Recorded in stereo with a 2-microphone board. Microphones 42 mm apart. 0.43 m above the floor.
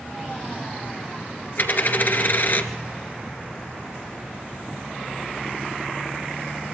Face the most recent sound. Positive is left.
turn(degrees=50)  # may be behind; listen again after turning